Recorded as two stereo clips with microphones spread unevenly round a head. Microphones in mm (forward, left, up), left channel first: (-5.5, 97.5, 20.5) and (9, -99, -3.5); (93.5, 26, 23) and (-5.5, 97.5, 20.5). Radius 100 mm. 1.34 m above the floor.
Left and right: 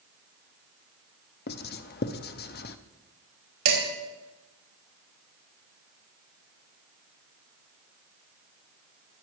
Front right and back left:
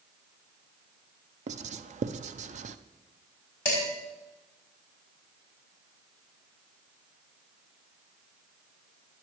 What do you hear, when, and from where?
1.5 s writing: 135° left, 0.6 m
3.6 s dishes clattering: 110° right, 6 m